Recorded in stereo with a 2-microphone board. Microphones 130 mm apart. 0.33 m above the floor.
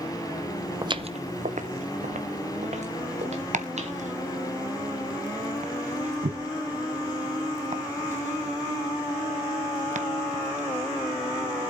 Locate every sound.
0.8 s footsteps: 30° right (ahead or behind), 0.5 m; by 4.0 s 60° right (ahead or behind), 3 m
3.5 s chopping: 70° right (ahead or behind), 1.1 m